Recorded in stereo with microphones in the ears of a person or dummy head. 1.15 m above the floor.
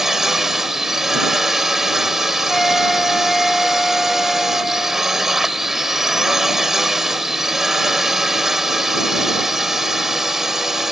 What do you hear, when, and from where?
0.0 s a drone: centre (ahead or behind)
2.5 s a flute: 5° left (ahead or behind)